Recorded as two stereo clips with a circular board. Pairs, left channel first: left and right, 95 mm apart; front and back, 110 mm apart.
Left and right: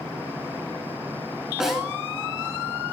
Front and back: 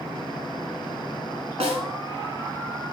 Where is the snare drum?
175° right, 0.9 m.